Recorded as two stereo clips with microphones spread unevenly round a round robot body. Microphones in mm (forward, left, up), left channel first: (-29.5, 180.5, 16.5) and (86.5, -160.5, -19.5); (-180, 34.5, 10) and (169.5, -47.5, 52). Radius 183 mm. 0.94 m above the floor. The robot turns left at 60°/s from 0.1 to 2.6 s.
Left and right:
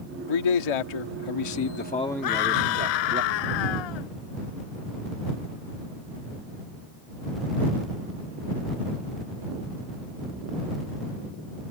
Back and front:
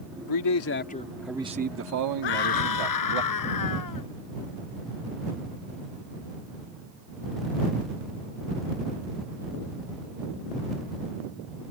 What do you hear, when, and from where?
0.3 s a man speaking: 135° left; by 3.2 s 5° right
2.2 s a scream: 150° left; by 4.1 s 130° left